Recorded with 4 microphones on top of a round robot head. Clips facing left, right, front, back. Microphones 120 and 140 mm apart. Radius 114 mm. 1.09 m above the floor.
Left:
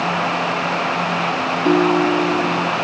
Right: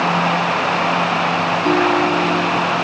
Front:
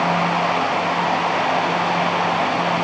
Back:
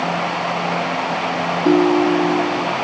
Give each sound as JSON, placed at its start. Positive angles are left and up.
{"t": 1.6, "sound": "a ringtone", "azimuth_deg": 170}